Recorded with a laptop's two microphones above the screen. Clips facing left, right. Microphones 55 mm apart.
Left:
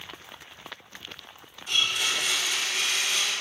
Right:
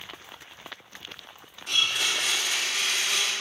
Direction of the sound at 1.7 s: 80° right.